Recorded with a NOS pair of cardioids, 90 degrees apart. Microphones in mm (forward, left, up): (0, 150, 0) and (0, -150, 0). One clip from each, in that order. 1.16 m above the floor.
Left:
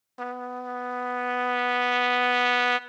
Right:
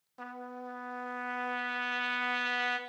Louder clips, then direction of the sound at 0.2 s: Left 10 dB; 40° left.